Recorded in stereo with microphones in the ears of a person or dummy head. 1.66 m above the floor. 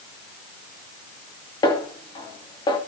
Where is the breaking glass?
I don't hear breaking glass.